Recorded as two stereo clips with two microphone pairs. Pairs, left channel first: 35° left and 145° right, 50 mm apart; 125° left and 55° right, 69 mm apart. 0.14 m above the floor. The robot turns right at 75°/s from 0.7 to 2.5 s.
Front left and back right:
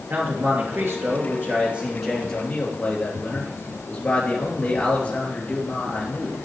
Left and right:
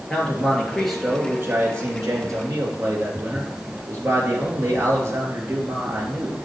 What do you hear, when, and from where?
0.1 s a man speaking: 160° right, 3 m; by 6.4 s 25° right, 3 m